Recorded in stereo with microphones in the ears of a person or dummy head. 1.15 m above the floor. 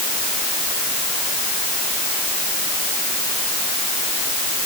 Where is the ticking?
No ticking in this recording.